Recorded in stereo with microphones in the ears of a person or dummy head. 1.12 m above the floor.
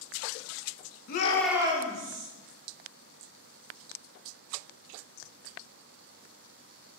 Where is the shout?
55° left (ahead or behind), 0.6 m; by 2.3 s 50° right (ahead or behind), 1.2 m.